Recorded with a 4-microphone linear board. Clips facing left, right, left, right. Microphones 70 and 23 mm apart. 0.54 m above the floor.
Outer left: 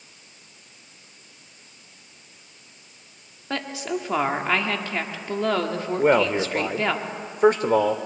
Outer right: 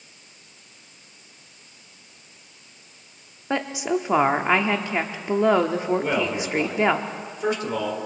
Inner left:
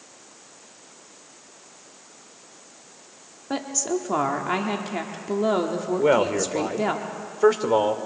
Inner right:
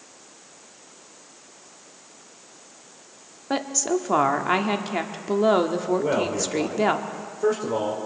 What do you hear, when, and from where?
3.5 s a woman speaking: 20° right (ahead or behind), 1.1 m
6.0 s a man speaking: 50° left (ahead or behind), 1.5 m